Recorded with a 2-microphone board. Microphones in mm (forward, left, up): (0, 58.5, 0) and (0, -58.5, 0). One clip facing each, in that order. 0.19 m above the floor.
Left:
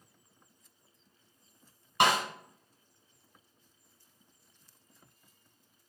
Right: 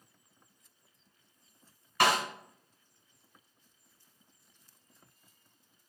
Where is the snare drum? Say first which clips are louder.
Left 1 dB; 25° left (ahead or behind), 1.0 m.